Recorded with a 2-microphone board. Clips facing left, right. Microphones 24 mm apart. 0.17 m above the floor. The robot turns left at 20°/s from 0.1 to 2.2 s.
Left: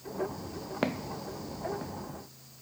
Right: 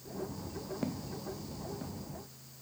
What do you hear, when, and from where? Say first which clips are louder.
0.8 s footsteps: left 8 dB; 55° left (ahead or behind); by 1.9 s 20° left (ahead or behind)